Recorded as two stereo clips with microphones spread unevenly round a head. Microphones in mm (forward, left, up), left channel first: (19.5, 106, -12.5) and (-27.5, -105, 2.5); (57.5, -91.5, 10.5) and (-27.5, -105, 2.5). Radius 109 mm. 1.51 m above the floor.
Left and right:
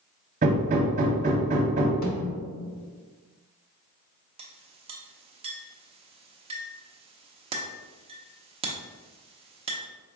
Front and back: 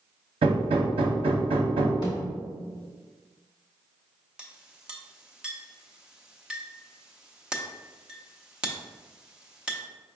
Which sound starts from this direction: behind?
Hammering, at 0.4 s.